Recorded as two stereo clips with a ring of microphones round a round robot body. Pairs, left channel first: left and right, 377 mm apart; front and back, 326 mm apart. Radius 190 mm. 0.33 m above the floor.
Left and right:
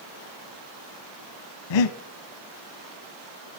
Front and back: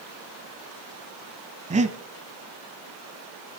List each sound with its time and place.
1.7 s breathing: 110° left, 1.1 m